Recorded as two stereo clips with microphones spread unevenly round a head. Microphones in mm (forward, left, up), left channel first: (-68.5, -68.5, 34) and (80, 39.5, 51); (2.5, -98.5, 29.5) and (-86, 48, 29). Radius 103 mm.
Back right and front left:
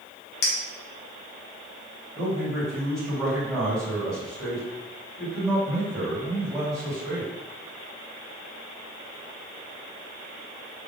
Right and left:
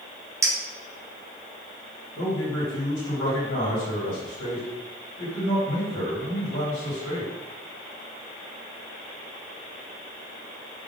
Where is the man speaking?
55° right, 2.5 m.